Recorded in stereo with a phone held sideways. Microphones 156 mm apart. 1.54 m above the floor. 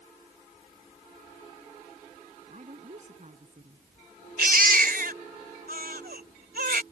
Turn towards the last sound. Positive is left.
turn(degrees=-75)  # may be behind; listen again after turning